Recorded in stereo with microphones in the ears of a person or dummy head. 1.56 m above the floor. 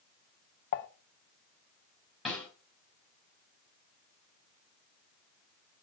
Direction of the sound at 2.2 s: Centre (ahead or behind).